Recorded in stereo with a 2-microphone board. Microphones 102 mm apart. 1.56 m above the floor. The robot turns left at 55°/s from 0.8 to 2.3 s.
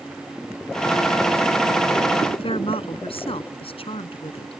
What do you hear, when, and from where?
2.3 s a woman speaking: 60° left (ahead or behind)